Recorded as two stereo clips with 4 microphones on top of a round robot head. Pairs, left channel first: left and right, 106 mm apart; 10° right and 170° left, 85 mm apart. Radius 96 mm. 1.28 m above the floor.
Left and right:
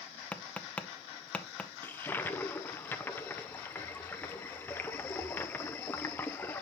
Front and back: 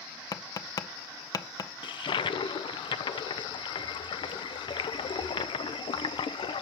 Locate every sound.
0.3 s tapping: 15° left, 0.7 m
1.8 s a toilet flushing: 20° left, 0.5 m